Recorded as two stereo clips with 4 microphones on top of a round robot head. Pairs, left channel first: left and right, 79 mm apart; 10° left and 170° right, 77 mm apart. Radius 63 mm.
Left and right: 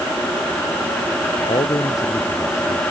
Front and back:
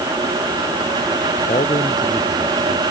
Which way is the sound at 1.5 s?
40° left.